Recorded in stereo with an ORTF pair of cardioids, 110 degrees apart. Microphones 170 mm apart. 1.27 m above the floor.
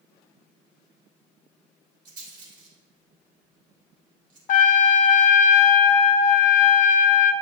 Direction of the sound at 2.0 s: 50° right.